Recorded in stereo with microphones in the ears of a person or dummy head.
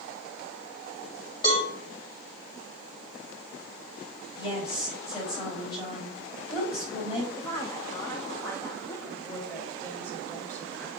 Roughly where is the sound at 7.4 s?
Centre.